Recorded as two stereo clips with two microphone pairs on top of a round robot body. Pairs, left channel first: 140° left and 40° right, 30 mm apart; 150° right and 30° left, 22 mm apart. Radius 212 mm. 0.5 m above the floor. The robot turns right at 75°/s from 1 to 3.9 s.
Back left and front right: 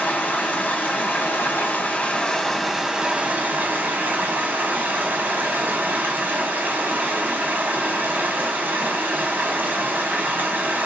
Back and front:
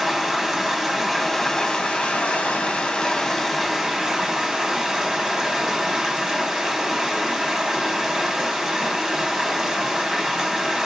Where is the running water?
105° left, 1.3 m; by 10.8 s 35° right, 1.3 m.